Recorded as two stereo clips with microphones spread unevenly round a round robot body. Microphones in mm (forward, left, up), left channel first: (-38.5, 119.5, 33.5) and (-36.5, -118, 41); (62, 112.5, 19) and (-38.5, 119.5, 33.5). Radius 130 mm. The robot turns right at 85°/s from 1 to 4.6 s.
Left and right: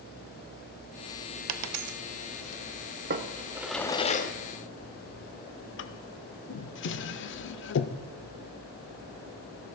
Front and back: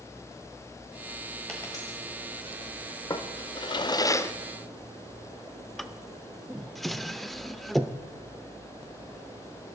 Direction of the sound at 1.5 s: 90° right.